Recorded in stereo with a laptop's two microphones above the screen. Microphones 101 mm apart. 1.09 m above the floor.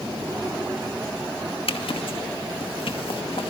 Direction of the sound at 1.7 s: 70° left (ahead or behind).